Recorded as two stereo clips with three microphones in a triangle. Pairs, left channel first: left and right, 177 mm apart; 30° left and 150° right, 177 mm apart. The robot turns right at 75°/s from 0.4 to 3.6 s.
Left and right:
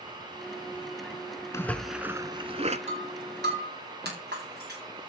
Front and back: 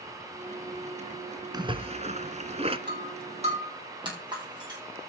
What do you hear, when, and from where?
1.5 s a splash: 155° left, 1.0 m; by 2.8 s 110° right, 1.0 m
2.9 s breaking glass: 140° right, 8 m; by 4.8 s 85° right, 8 m